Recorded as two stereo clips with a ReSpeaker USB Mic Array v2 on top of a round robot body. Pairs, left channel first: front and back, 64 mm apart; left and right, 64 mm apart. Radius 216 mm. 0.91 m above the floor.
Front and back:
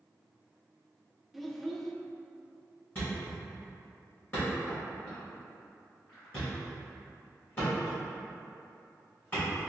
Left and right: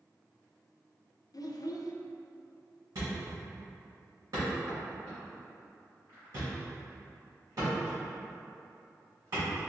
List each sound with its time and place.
1.3 s a child speaking: 95° left, 0.5 m
3.0 s a thud: 55° right, 2.0 m